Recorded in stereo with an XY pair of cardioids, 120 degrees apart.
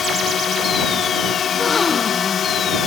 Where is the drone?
50° left.